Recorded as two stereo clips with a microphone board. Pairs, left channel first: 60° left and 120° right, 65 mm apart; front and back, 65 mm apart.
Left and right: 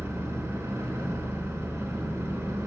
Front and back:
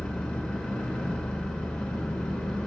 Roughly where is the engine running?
Right.